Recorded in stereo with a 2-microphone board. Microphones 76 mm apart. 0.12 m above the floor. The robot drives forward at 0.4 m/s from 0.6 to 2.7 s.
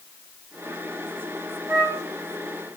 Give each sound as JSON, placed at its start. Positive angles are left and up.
{"t": 1.7, "sound": "a flute", "side_deg": -40, "distance_m": 1.6}